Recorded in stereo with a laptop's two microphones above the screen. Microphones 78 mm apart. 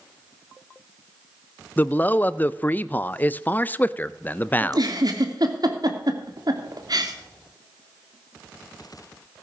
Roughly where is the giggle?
Right.